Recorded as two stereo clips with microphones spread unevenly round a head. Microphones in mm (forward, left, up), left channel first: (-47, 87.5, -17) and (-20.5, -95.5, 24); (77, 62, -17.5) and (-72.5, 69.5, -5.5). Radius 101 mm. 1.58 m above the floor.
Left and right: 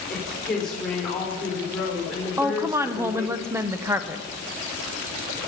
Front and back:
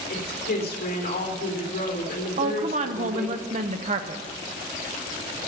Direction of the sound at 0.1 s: 10° left.